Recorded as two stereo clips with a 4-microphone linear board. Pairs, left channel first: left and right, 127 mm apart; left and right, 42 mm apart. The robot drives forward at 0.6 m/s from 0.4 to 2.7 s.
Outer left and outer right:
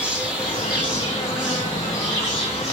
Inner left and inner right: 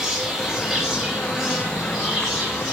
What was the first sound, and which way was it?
An insect, 10° right (ahead or behind).